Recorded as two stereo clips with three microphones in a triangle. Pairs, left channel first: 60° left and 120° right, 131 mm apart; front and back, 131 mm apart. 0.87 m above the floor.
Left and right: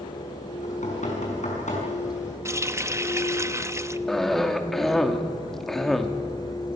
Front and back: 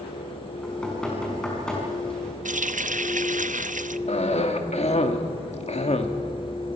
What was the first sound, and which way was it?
Knocking, 85° left.